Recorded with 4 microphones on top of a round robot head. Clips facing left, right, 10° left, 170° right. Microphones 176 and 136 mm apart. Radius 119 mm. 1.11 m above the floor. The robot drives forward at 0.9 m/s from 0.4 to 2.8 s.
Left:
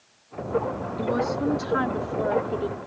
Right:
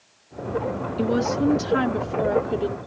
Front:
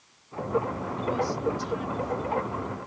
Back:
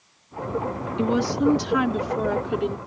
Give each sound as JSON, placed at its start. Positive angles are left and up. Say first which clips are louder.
{"t": 1.0, "sound": "a woman speaking", "louder": "right 4 dB, back 7 dB", "azimuth_deg": -155}